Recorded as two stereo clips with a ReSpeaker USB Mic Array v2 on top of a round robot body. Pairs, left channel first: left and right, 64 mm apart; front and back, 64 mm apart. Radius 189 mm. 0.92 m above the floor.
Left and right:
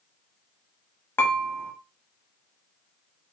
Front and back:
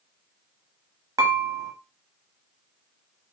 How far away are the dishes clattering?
About 0.9 m.